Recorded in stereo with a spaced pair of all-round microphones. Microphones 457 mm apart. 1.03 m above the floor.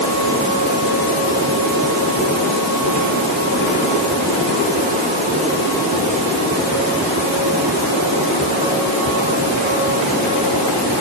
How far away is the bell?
No bell in this recording.